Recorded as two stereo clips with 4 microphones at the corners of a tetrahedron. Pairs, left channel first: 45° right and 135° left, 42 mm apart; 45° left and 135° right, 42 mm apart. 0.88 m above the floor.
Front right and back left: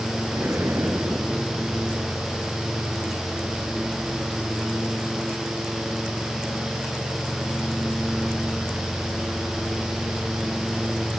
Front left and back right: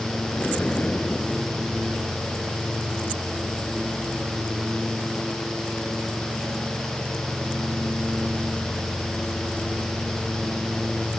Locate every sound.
0.3 s an explosion: 105° left